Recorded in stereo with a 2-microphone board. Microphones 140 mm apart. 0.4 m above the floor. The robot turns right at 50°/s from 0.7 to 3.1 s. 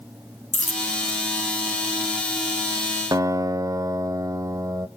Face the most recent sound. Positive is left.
turn(degrees=-25)  # may be behind; listen again after turning